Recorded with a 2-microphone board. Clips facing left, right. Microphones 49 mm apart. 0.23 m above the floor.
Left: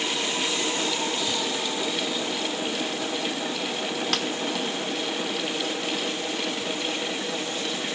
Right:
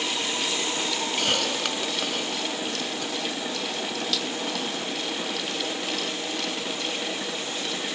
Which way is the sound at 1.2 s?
65° right (ahead or behind).